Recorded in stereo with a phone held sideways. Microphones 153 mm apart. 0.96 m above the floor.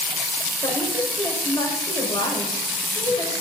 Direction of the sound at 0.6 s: 30° left (ahead or behind).